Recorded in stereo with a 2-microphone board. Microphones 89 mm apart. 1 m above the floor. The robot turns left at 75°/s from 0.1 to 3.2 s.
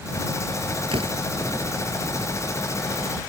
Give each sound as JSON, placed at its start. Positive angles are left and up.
{"t": 0.9, "sound": "a door slam", "side_deg": -90}